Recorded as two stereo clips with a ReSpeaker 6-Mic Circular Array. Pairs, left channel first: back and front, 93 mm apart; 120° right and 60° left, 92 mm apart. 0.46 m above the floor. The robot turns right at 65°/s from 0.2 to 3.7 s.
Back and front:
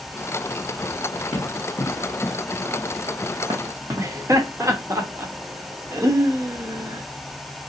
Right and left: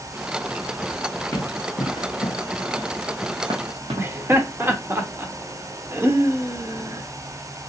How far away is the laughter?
About 0.9 m.